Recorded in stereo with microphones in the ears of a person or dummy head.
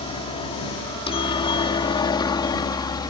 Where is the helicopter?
25° left (ahead or behind); by 3.1 s 20° left (ahead or behind).